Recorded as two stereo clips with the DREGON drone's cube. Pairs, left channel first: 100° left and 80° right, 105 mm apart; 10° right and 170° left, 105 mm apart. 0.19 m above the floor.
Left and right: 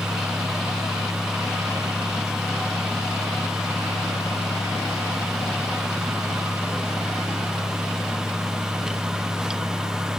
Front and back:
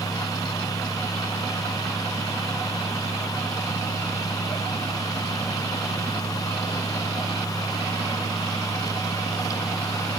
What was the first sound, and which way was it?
Only background noise.